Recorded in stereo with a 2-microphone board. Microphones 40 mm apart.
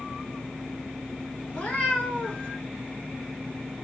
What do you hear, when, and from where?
1.5 s a cat meowing: 35° left (ahead or behind), 1.1 m